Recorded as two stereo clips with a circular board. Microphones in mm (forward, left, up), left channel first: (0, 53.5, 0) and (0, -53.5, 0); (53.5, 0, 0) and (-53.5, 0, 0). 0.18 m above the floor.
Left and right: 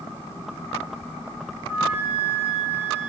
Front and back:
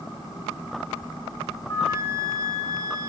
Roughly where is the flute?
Ahead.